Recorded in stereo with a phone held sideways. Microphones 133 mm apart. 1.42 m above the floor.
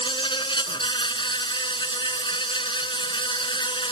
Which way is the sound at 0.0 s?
35° left (ahead or behind).